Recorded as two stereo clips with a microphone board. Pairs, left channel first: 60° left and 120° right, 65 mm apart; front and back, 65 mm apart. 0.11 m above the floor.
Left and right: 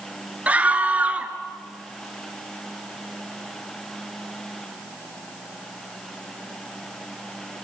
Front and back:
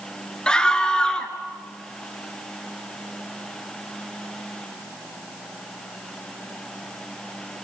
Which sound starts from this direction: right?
A scream, at 0.5 s.